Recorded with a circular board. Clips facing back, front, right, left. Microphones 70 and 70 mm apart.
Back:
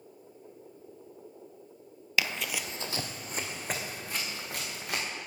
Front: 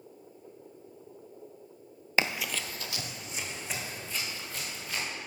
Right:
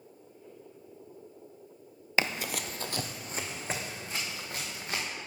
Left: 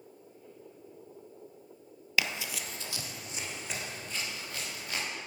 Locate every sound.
2.2 s running footsteps: 45° right, 0.7 m; by 5.0 s 145° right, 4.5 m